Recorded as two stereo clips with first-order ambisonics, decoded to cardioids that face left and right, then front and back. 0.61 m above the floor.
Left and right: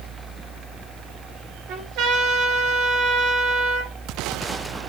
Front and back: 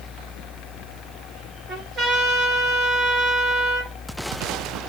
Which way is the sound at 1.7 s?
120° right.